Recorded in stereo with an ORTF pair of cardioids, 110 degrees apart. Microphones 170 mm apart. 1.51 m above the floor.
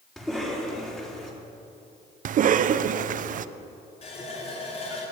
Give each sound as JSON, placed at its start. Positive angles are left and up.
{"t": 0.2, "sound": "a cough", "azimuth_deg": 5, "distance_m": 4.0}
{"t": 2.2, "sound": "a cough", "azimuth_deg": -55, "distance_m": 0.8}
{"t": 4.0, "sound": "a running tap", "azimuth_deg": 40, "distance_m": 5.0}